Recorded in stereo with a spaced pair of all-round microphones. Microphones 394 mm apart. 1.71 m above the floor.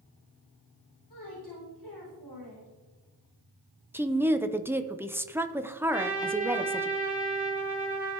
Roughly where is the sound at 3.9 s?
Centre.